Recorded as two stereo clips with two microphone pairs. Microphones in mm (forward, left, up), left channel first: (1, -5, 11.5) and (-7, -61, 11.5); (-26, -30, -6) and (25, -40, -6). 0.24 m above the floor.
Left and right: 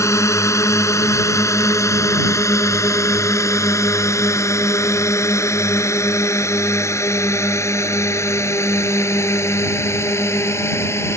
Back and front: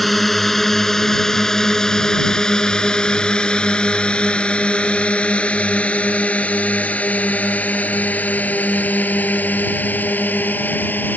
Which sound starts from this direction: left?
A drone, at 0.0 s.